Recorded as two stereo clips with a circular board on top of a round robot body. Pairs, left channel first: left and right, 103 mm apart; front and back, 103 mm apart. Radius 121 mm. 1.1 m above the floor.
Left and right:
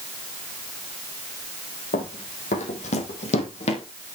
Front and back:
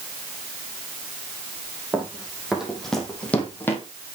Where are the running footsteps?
105° left, 3.5 m; by 3.8 s 70° left, 3 m.